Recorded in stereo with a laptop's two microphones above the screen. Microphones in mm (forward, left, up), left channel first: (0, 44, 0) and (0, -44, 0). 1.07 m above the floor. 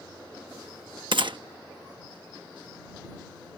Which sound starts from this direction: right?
A gunshot, at 1.1 s.